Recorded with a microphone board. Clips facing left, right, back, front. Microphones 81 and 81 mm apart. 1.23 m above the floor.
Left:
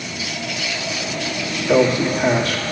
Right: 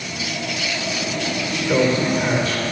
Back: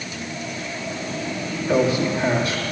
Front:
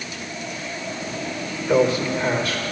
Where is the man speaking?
115° left, 2.5 m.